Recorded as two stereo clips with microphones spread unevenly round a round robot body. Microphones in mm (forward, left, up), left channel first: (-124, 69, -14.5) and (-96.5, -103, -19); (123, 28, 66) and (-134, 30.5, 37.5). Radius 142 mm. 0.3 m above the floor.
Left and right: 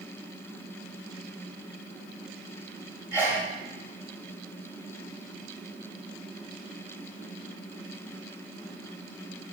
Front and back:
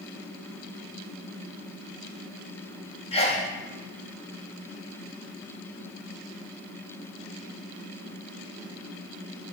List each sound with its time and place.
3.1 s a sneeze: 35° right, 0.9 m